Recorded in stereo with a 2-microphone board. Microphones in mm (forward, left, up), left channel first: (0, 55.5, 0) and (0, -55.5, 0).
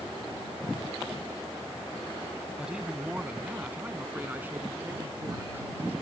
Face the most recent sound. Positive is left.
turn(degrees=-20)  # may be behind; listen again after turning